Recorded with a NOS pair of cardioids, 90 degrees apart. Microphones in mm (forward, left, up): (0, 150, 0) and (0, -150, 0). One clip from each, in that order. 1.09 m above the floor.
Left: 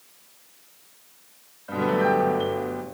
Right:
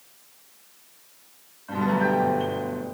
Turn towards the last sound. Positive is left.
turn(degrees=25)